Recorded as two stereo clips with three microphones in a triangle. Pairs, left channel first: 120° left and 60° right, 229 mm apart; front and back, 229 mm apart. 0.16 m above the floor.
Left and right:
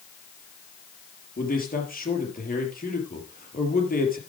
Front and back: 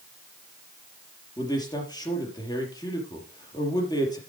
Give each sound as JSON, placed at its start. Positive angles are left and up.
{"t": 1.4, "sound": "a man speaking", "azimuth_deg": 70, "distance_m": 4.0}